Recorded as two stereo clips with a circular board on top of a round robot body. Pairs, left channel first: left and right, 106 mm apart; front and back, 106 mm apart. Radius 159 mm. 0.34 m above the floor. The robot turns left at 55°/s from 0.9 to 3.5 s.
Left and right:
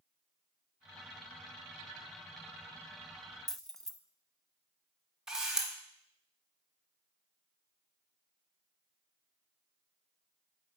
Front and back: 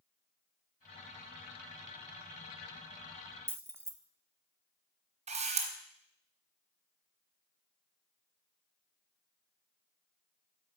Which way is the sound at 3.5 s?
170° left.